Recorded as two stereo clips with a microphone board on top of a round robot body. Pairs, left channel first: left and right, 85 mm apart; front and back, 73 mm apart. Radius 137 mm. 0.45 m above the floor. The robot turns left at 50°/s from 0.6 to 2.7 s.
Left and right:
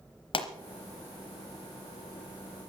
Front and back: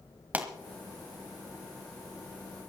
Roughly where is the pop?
Left.